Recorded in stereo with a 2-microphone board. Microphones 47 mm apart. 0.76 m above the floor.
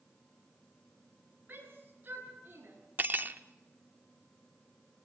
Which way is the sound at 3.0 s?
45° right (ahead or behind).